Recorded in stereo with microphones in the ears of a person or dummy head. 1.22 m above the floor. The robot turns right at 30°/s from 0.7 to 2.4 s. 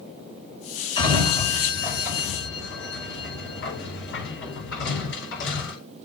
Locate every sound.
1.0 s a sliding door: 25° left (ahead or behind), 5.5 m; by 5.8 s 70° left (ahead or behind), 5.5 m